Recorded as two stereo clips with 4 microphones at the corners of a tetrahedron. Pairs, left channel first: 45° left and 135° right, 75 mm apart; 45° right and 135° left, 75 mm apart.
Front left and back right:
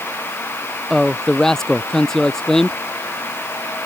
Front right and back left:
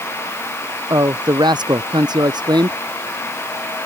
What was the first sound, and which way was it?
A man speaking, 130° left.